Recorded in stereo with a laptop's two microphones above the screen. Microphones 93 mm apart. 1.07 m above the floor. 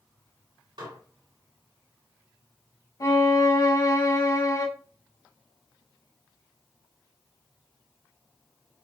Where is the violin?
40° left (ahead or behind), 0.7 m.